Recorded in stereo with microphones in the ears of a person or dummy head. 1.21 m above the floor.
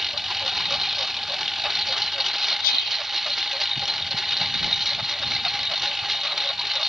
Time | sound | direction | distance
0.0 | a lawn mower | centre (ahead or behind) | ?
2.6 | whispering | 50° left (ahead or behind) | ?